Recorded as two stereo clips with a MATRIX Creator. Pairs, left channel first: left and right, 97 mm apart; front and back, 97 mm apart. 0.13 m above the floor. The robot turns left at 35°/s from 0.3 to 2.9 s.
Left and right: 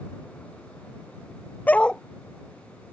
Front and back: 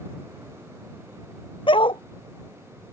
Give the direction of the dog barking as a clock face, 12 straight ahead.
11 o'clock.